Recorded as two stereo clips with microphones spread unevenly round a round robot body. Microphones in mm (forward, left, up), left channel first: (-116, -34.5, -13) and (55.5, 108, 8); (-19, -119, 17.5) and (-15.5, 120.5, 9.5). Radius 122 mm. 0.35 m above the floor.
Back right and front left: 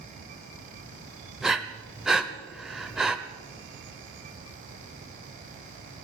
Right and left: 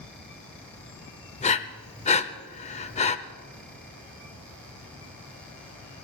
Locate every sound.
1.4 s breathing: 55° right, 0.8 m